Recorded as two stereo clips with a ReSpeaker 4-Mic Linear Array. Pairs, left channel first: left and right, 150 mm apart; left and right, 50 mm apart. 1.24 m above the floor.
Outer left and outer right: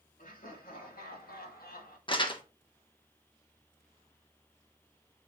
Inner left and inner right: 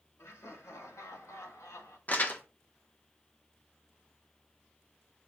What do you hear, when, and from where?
0.2 s laughter: 70° left (ahead or behind), 2.5 m
2.1 s crumpling: 35° left (ahead or behind), 1.2 m